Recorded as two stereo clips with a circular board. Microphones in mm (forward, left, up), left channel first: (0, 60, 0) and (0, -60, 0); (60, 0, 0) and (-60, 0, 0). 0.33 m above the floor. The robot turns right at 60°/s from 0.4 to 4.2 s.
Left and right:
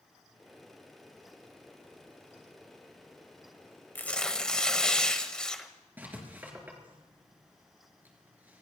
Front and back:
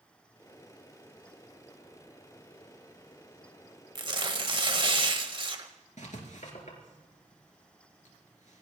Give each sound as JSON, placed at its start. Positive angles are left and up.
{"t": 4.0, "sound": "tearing paper", "azimuth_deg": 155, "distance_m": 1.4}
{"t": 6.0, "sound": "writing", "azimuth_deg": -15, "distance_m": 3.5}